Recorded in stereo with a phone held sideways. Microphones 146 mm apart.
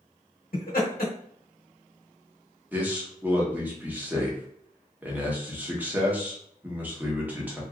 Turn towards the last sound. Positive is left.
turn(degrees=-10)  # may be behind; listen again after turning